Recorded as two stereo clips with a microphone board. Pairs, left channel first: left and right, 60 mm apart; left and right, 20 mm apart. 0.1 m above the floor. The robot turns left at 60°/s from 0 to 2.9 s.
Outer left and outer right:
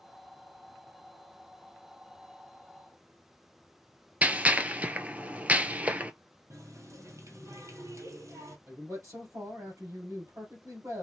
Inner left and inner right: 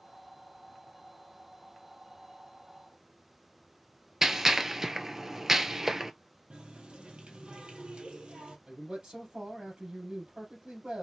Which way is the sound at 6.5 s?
60° right (ahead or behind).